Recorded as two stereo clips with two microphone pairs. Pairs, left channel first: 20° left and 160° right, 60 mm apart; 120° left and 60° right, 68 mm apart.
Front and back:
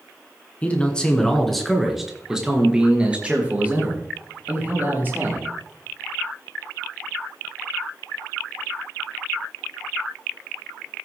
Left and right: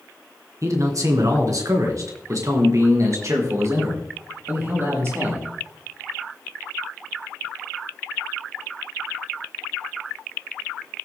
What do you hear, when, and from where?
0.6 s a man speaking: 45° right, 2.5 m; by 5.5 s 105° right, 6 m